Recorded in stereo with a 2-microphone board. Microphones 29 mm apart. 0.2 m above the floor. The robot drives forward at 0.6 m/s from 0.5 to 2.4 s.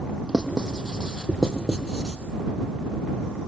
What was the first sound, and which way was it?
Writing, 10° right (ahead or behind).